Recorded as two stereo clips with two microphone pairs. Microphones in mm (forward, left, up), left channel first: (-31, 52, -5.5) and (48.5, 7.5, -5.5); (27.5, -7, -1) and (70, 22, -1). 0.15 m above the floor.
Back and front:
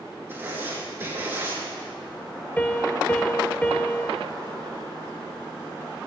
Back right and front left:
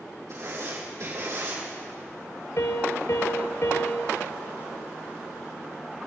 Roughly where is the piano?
Behind right.